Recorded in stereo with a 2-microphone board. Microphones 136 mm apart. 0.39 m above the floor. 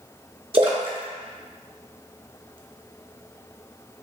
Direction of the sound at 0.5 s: 40° right (ahead or behind).